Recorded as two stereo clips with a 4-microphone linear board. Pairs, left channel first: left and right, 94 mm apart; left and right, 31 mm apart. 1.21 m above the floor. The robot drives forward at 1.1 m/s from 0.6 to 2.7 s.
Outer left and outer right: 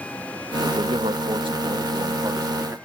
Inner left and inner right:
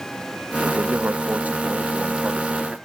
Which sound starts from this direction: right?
A man speaking, at 0.6 s.